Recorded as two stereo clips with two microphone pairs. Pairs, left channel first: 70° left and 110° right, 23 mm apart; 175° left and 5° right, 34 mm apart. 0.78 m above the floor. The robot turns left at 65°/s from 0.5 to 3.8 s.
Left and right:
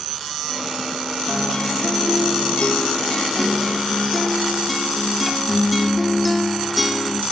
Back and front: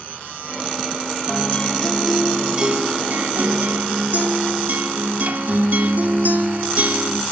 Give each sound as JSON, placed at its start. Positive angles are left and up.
{"t": 1.3, "sound": "a guitar", "azimuth_deg": 140, "distance_m": 2.0}